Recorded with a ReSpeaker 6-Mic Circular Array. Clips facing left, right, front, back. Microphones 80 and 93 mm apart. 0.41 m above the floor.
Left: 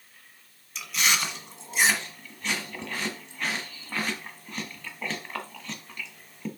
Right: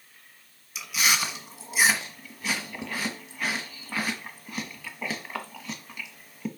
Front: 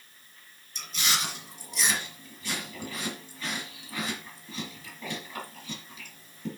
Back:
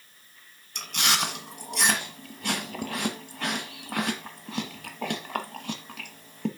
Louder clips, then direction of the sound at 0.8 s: Right 1 dB, back 4 dB; 175° right.